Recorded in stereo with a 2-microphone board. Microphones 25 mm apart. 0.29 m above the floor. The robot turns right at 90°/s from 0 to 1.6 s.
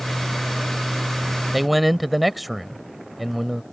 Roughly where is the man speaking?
Centre.